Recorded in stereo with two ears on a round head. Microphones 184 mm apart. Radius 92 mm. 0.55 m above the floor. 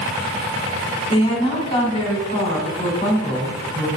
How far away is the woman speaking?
About 2.5 m.